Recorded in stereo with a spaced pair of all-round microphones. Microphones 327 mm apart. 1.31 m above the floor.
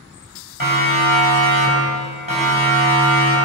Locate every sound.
0.6 s a siren: 85° left, 7.5 m; by 3.4 s 75° left (ahead or behind), 9 m